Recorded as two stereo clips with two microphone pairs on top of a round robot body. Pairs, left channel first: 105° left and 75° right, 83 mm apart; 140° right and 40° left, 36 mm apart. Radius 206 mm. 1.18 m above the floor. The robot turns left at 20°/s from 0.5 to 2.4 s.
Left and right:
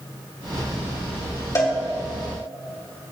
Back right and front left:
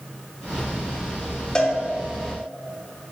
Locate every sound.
1.6 s a cowbell: 155° left, 2.5 m; by 1.7 s 150° left, 2.5 m